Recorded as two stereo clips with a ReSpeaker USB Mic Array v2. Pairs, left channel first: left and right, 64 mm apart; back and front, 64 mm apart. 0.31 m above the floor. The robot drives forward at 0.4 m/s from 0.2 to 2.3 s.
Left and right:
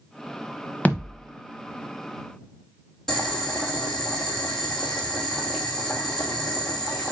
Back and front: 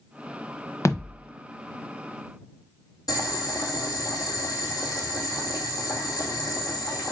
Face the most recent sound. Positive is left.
turn(degrees=175)